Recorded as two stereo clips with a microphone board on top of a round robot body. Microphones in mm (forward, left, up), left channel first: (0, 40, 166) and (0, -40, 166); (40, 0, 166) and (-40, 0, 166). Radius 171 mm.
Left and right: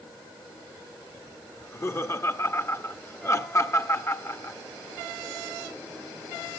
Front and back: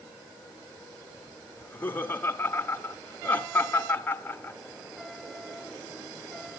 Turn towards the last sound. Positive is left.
turn(degrees=55)